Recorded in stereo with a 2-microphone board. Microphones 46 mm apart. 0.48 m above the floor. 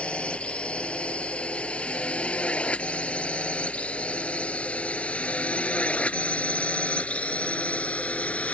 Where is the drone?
25° left (ahead or behind); by 8.5 s 30° left (ahead or behind).